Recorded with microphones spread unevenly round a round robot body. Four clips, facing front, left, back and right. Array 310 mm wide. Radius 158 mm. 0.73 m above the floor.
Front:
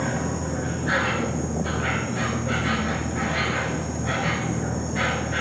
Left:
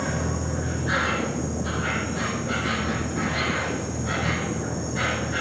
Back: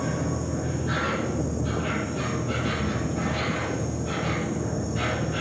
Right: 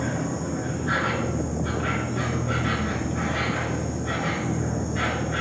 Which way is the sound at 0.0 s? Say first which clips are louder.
Even, front 1 dB; 10° left.